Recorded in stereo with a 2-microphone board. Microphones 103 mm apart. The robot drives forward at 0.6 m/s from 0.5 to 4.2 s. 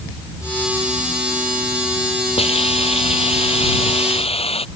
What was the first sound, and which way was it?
A hiss, 75° left (ahead or behind).